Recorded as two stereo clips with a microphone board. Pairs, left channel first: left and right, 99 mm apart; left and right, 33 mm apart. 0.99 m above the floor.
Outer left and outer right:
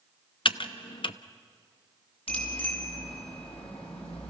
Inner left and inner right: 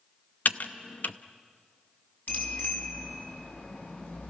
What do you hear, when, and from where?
0.5 s typing on a keyboard: 55° left (ahead or behind), 0.6 m
2.3 s a bicycle bell: 75° left (ahead or behind), 6 m